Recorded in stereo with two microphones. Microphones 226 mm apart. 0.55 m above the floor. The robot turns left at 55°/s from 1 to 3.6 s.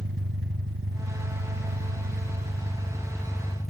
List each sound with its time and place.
0.0 s an engine running: 65° right, 1.6 m; by 3.7 s 150° left, 1.6 m